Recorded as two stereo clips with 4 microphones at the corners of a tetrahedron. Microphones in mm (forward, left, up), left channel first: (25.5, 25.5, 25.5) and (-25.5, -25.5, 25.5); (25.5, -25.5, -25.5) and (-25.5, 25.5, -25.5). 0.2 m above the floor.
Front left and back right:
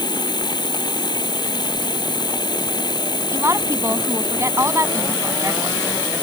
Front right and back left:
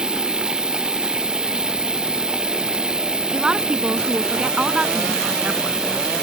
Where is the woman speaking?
155° right.